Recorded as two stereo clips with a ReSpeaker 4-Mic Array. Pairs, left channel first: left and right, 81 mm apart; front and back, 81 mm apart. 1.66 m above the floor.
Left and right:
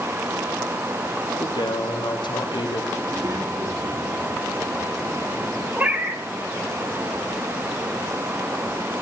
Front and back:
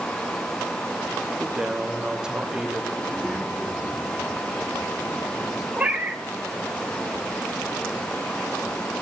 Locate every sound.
1.4 s a man speaking: 100° left, 1.0 m
3.0 s a child speaking: 70° right, 2 m
5.8 s a cat meowing: 120° right, 1.2 m